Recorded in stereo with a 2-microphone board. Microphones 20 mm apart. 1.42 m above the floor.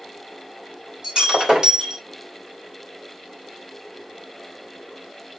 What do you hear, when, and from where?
1.0 s breaking glass: 55° right (ahead or behind), 3.5 m